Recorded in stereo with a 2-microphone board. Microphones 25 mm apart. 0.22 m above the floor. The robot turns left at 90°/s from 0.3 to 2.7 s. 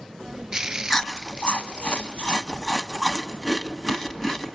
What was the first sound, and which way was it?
Chewing, centre (ahead or behind).